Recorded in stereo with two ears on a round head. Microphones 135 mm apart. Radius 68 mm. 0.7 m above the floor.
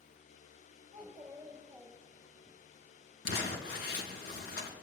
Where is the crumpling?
70° left (ahead or behind), 3.5 m.